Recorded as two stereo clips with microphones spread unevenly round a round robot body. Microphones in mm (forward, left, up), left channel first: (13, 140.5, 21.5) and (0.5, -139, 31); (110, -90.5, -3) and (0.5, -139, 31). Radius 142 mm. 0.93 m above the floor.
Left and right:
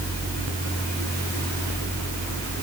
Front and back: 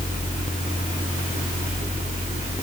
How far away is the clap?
No clap in this recording.